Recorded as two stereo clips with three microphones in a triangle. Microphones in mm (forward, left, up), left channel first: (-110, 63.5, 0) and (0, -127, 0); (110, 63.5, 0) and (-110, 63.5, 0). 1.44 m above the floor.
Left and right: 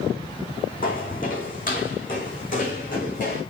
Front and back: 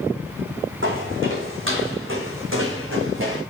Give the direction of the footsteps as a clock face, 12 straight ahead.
6 o'clock.